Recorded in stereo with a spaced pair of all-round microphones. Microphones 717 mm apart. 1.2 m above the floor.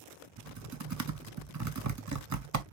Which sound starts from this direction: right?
Typing on a keyboard, at 0.4 s.